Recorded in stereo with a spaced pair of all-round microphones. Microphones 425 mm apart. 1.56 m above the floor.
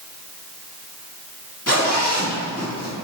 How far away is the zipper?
About 1.9 m.